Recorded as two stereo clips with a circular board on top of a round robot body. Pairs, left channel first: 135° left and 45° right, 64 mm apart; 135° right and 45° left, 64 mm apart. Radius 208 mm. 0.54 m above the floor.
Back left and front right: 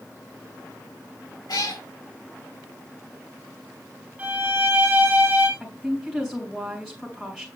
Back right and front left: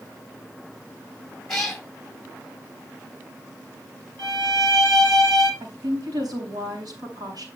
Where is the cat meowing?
140° left, 3 m.